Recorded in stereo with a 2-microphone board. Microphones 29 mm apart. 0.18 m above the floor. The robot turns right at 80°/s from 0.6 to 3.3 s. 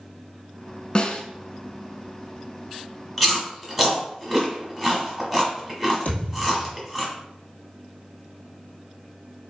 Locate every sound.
0.9 s a snare drum: 30° left (ahead or behind), 0.7 m; by 1.2 s 45° left (ahead or behind), 0.7 m
3.2 s chewing: 5° left (ahead or behind), 1.3 m
6.0 s a thud: 55° left (ahead or behind), 2 m